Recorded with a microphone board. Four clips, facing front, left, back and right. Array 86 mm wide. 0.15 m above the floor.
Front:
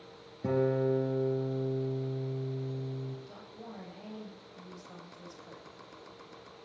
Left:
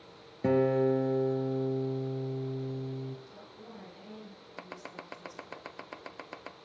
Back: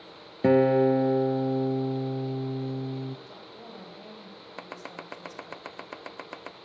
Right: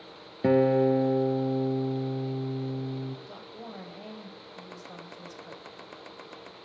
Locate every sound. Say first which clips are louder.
0.4 s a guitar: right 4 dB, back 9 dB; 160° right, 1.2 m
3.3 s a woman speaking: right 6 dB, back 2 dB; 95° right, 7.5 m
4.6 s chopping: left 2 dB, back 9 dB; 165° left, 0.5 m